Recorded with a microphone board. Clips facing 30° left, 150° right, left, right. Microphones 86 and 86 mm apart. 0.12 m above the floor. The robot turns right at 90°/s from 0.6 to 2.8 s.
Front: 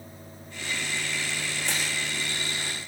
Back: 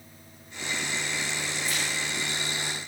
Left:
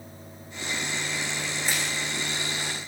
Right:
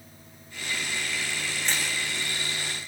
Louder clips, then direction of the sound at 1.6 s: Front 2 dB, even; 5° left.